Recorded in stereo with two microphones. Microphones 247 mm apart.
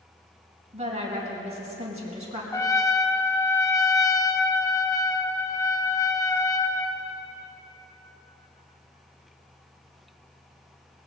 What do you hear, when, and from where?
0.7 s a woman speaking: 25° right (ahead or behind), 3.5 m
2.5 s a trumpet: 10° left (ahead or behind), 0.7 m